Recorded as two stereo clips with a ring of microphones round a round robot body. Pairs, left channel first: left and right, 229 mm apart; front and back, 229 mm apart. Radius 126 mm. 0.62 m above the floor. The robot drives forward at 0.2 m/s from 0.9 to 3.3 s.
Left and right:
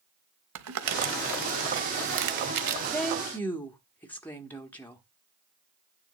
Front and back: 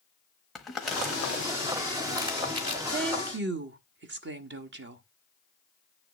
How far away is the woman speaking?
About 0.9 m.